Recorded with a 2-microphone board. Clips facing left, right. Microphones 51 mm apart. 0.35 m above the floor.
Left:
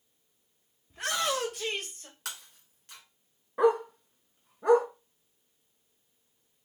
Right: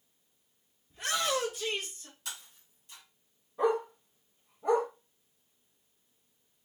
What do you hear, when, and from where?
0.9 s a shout: 70° left (ahead or behind), 2.5 m; by 2.1 s 50° left (ahead or behind), 1.3 m
2.2 s breaking glass: 70° left (ahead or behind), 1.8 m
3.6 s a dog barking: 85° left, 1.4 m